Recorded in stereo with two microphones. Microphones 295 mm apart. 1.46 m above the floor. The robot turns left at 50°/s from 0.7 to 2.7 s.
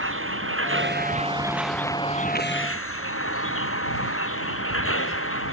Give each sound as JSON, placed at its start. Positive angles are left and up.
{"t": 0.0, "sound": "a vehicle", "azimuth_deg": -130}